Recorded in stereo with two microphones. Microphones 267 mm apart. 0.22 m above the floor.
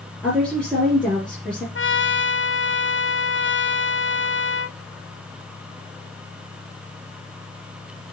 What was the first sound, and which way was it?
A woman speaking, 5° left (ahead or behind).